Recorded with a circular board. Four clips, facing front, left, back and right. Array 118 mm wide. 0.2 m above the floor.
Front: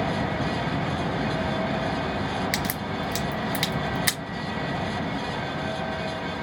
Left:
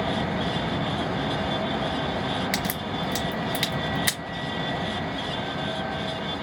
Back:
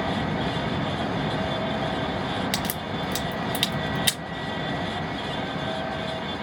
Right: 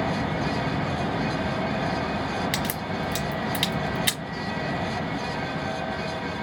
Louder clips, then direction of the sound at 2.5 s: Even, even; 30° left.